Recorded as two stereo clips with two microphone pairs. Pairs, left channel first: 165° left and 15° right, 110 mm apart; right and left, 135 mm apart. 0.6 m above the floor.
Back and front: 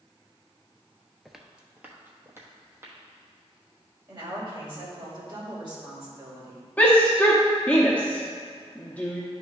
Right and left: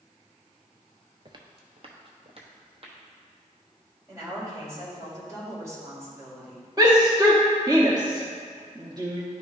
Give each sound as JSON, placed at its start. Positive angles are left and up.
{"t": 1.2, "sound": "footsteps", "azimuth_deg": 80, "distance_m": 0.6}
{"t": 4.1, "sound": "a woman speaking", "azimuth_deg": 25, "distance_m": 2.5}
{"t": 6.8, "sound": "a shout", "azimuth_deg": 110, "distance_m": 0.8}